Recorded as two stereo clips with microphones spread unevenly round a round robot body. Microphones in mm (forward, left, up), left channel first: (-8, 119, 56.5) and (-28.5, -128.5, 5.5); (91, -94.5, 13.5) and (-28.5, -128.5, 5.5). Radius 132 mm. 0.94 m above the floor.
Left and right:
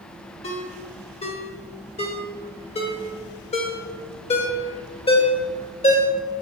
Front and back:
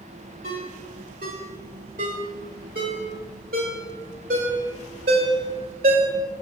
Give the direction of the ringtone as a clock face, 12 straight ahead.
7 o'clock.